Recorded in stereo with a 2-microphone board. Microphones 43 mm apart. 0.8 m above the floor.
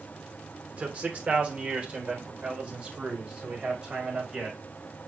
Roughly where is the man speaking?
Right.